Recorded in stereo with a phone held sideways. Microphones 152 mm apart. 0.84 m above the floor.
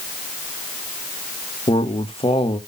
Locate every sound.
1.7 s a man speaking: 40° left (ahead or behind), 1.2 m